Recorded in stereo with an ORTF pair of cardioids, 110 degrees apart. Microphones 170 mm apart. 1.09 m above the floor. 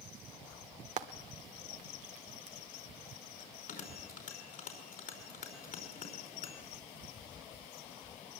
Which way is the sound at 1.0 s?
45° right.